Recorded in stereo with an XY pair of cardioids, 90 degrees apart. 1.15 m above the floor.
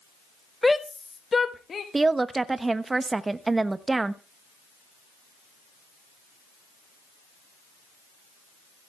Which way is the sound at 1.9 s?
25° right.